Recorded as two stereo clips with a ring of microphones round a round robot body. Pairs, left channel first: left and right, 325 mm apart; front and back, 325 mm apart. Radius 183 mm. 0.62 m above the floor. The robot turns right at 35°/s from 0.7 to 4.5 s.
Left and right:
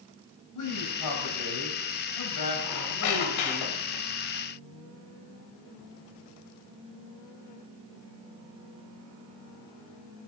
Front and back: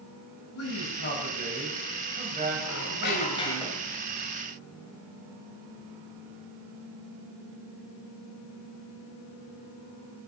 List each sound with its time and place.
0.6 s a man speaking: 50° left, 4 m; by 3.6 s 155° left, 4 m
2.6 s a squeak: 50° left, 1.6 m; by 4.0 s 100° left, 1.6 m